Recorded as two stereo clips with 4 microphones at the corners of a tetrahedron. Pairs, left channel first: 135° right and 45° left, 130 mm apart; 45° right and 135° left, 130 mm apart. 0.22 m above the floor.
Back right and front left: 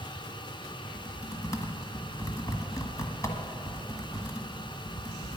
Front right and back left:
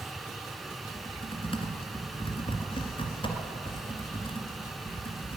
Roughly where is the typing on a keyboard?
Right.